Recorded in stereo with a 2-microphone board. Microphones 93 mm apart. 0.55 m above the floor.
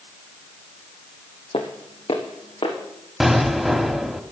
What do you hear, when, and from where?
1.5 s footsteps: 75° left (ahead or behind), 2.0 m
3.2 s an explosion: 5° right (ahead or behind), 1.4 m